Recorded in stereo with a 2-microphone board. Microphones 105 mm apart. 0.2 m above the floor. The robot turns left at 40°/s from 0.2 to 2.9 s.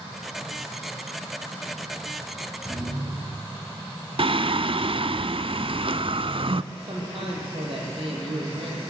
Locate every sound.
2.6 s a thud: 15° right (ahead or behind), 9 m; by 3.6 s 25° right (ahead or behind), 9 m
4.2 s singing: 60° right (ahead or behind), 0.6 m
6.7 s a man speaking: 65° right (ahead or behind), 6.5 m